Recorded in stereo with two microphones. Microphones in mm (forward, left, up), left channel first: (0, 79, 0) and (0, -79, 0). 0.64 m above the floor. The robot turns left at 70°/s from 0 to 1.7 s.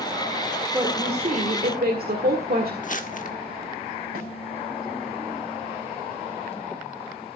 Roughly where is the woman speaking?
Ahead.